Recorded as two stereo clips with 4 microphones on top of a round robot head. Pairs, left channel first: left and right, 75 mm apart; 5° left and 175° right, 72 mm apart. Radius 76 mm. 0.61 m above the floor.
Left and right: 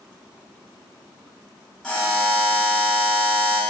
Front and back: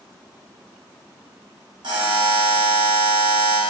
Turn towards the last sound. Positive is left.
turn(degrees=175)